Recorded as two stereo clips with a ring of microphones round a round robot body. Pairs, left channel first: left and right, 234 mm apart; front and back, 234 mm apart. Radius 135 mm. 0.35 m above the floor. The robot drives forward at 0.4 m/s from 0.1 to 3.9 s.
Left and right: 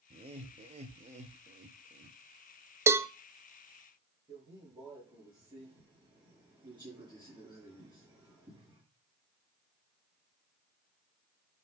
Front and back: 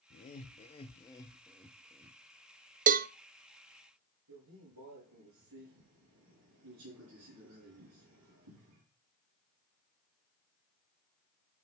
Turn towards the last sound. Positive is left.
turn(degrees=-165)